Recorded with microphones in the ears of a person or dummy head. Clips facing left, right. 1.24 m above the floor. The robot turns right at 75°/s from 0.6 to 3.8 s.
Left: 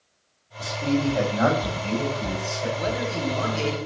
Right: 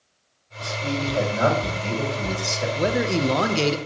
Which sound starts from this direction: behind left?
A man speaking, at 0.6 s.